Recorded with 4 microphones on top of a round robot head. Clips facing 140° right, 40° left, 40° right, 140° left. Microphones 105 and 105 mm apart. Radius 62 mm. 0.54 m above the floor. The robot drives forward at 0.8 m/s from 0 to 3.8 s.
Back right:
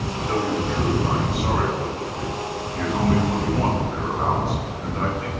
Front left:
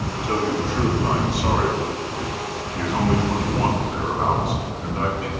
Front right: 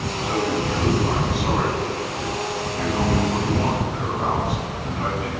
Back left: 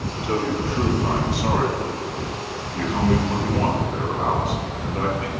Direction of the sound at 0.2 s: 80° left.